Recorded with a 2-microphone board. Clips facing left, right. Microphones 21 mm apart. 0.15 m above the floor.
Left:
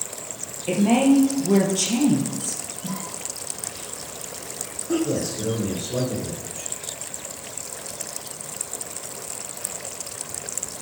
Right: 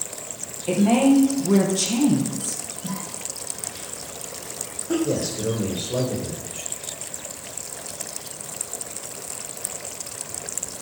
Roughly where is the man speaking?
Right.